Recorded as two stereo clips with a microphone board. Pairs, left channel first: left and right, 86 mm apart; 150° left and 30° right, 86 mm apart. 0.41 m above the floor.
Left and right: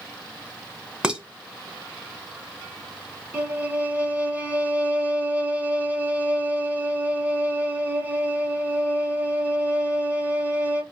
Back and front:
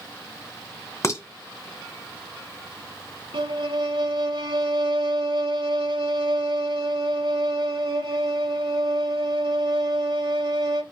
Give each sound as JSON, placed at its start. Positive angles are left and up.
{"t": 1.0, "sound": "dishes clattering", "azimuth_deg": -165, "distance_m": 0.8}
{"t": 3.3, "sound": "a violin", "azimuth_deg": -20, "distance_m": 1.0}